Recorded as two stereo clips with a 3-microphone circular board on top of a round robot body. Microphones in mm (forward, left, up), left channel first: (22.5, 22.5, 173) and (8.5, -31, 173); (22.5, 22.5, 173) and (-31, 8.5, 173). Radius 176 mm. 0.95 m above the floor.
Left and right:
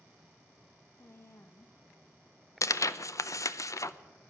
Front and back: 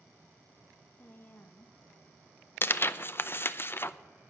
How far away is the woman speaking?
About 1.0 m.